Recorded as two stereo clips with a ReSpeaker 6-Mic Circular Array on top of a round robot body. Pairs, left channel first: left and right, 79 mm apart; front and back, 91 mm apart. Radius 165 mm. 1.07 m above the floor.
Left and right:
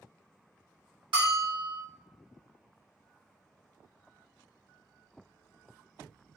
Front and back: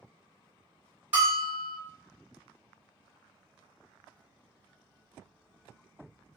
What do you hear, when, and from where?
1.1 s a bell: 110° right, 1.6 m